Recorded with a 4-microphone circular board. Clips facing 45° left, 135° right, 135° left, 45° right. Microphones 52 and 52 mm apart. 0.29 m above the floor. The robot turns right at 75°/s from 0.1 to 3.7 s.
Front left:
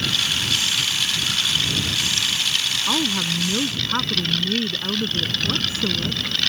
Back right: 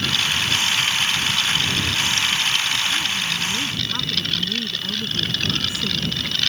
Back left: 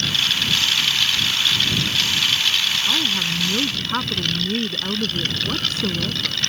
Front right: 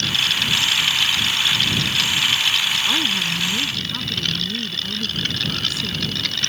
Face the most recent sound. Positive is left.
turn(degrees=100)